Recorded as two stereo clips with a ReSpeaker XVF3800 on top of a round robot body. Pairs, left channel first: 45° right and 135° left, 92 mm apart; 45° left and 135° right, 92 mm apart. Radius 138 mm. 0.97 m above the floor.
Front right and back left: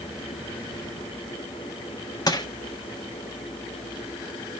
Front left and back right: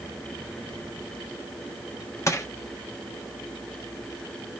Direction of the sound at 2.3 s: 10° right.